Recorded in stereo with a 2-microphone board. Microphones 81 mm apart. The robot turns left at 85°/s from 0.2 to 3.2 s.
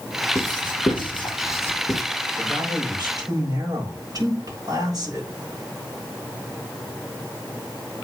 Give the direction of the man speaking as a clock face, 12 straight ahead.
2 o'clock.